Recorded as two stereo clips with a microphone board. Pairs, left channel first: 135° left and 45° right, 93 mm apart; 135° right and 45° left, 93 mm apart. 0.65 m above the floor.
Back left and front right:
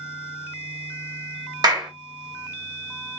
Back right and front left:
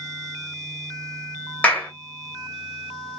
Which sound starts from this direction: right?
A clap, at 1.6 s.